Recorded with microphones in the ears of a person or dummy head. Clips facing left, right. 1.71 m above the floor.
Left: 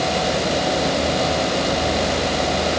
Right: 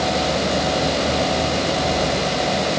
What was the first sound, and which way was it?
Only background noise.